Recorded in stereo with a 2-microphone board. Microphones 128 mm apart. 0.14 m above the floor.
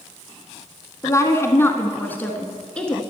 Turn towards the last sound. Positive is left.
turn(degrees=5)  # may be behind; listen again after turning